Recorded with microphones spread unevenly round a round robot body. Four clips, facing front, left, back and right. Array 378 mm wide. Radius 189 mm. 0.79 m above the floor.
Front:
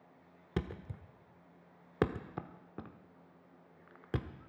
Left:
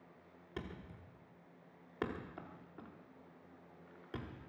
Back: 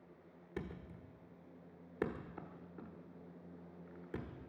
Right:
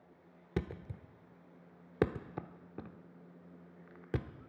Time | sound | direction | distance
0.6 | a thud | 45° right | 1.1 m